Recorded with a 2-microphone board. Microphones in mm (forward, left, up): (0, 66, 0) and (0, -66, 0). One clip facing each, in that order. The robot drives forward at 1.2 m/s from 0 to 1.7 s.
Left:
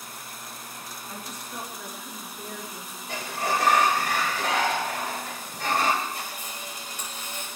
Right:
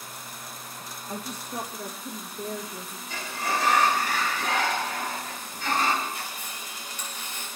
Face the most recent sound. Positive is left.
turn(degrees=45)  # may be behind; listen again after turning